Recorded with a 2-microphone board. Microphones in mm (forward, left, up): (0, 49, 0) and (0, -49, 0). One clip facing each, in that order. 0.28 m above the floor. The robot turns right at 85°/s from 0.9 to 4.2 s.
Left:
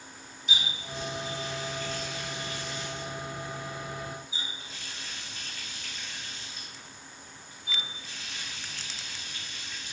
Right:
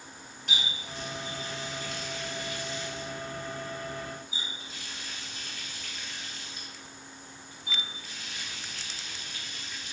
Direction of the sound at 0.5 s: 55° right (ahead or behind).